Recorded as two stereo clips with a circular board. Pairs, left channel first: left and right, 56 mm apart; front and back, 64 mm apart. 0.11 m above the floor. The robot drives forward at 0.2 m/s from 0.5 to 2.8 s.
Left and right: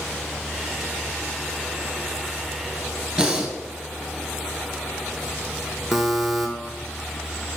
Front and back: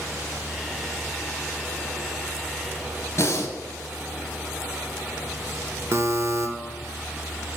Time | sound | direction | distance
3.2 | breathing | 25° right | 0.7 m
5.9 | a buzzer | 170° right | 0.6 m